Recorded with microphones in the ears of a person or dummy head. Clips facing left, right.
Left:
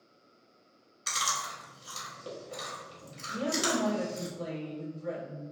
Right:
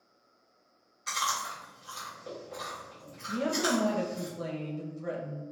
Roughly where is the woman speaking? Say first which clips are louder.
Right 2 dB; right.